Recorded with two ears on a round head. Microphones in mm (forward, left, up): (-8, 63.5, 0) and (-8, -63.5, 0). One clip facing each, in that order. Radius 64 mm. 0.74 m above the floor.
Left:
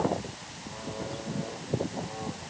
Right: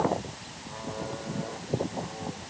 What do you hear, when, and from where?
Only background noise.